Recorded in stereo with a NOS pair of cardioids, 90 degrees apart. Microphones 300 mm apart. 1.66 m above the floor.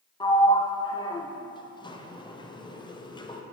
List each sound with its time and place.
0.2 s a sliding door: 15° left, 0.8 m